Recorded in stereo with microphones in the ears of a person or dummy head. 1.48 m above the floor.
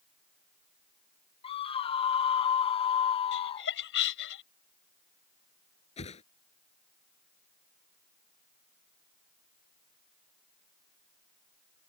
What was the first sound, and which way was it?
A scream, 30° left (ahead or behind).